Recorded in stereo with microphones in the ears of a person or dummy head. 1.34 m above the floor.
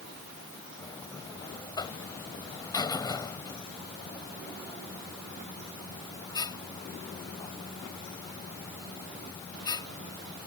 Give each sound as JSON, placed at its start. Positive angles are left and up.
{"t": 0.8, "sound": "a buzzer", "side_deg": 20}